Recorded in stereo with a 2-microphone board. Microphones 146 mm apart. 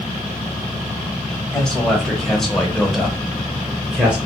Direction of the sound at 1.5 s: 5° left (ahead or behind).